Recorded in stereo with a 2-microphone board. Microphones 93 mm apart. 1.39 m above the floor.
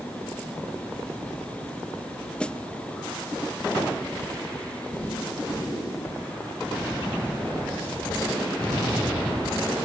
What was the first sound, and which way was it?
A snare drum, 10° left (ahead or behind).